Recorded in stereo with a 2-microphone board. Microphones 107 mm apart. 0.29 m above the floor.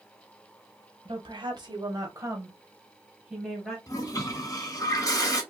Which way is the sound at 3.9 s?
35° left (ahead or behind).